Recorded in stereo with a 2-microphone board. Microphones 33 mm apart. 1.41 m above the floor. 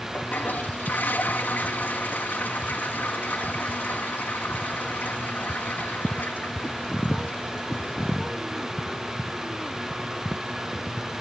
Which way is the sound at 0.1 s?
65° left (ahead or behind).